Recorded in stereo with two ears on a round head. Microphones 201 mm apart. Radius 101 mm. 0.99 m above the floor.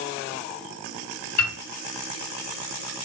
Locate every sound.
1.4 s a piano: 70° left (ahead or behind), 1.8 m